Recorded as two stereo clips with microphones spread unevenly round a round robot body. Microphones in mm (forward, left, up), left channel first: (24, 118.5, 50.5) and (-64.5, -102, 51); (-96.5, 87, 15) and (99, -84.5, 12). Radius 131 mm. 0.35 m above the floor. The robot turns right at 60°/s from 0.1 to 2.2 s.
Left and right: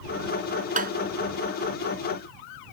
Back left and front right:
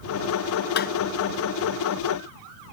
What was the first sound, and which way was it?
Tapping, 170° right.